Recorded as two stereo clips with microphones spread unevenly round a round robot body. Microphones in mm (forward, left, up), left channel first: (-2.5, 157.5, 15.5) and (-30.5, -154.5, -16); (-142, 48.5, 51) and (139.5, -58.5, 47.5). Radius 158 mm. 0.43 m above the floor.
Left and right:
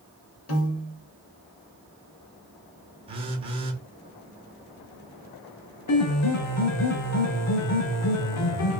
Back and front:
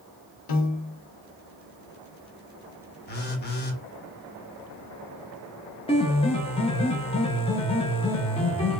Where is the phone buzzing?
155° right, 0.7 m.